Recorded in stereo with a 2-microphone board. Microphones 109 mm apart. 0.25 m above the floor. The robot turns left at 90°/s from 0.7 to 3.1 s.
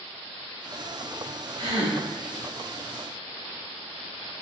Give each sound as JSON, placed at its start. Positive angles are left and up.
{"t": 1.6, "sound": "a gasp", "azimuth_deg": -90, "distance_m": 0.6}